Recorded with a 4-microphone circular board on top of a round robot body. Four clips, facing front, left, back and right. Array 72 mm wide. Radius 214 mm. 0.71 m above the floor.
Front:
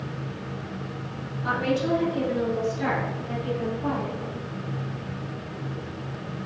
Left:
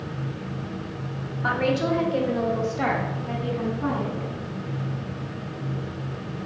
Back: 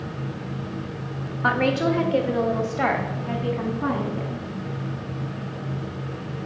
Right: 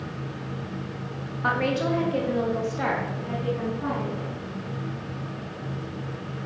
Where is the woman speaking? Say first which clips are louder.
Left 1 dB, back 4 dB; 165° right, 1.8 m; by 4.5 s 175° left, 3.5 m.